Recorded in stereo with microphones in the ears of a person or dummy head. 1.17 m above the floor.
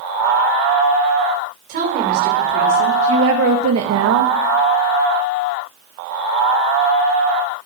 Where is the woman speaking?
50° right (ahead or behind), 3.5 m; by 4.3 s 60° right (ahead or behind), 1.0 m.